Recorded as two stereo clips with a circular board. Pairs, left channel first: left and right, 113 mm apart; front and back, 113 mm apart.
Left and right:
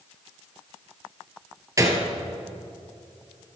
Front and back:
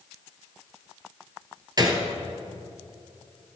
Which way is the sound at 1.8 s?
140° right.